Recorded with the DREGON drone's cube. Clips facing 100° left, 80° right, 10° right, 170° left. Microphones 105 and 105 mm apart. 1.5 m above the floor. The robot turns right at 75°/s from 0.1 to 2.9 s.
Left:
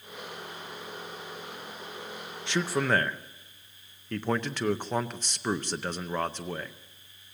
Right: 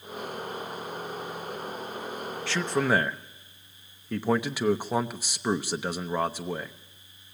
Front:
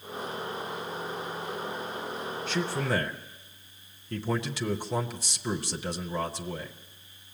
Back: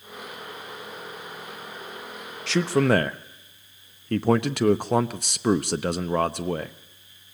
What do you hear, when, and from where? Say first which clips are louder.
2.5 s a man speaking: right 1 dB, back 10 dB; 165° left, 0.6 m; by 6.7 s 160° right, 0.6 m